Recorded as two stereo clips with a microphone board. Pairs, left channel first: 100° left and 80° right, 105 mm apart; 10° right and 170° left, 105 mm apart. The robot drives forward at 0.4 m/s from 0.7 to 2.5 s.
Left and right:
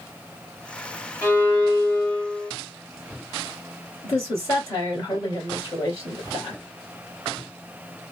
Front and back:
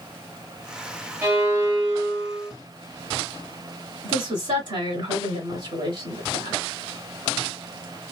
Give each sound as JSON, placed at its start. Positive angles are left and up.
{"t": 1.2, "sound": "a violin", "azimuth_deg": 140, "distance_m": 1.7}
{"t": 4.0, "sound": "a woman speaking", "azimuth_deg": 145, "distance_m": 2.0}